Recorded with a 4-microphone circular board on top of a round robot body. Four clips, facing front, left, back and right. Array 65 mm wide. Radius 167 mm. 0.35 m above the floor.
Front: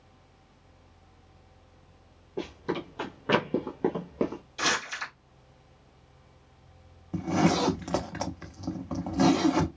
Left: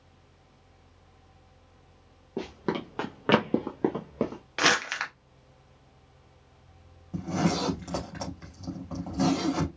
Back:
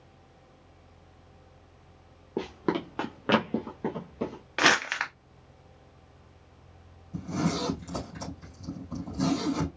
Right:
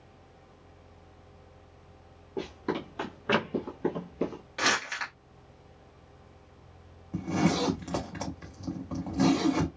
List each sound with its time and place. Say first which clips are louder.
2.4 s running footsteps: left 1 dB, back 3 dB; 165° left, 1.1 m; by 4.4 s 45° left, 1.2 m
4.6 s crumpling: left 3 dB, back 6 dB; 155° left, 0.6 m
7.1 s a zipper: right 1 dB, front 5 dB; 5° right, 0.8 m